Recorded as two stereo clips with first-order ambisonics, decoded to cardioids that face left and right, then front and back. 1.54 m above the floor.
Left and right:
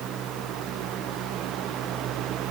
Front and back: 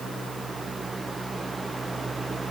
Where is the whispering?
No whispering in this recording.